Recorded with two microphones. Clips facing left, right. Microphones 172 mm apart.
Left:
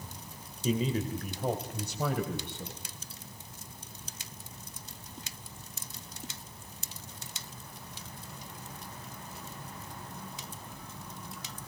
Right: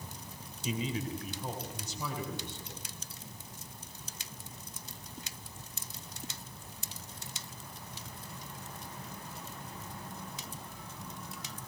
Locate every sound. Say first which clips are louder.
0.6 s a man speaking: left 5 dB; 40° left (ahead or behind), 2 m; by 2.8 s 65° left (ahead or behind), 3.5 m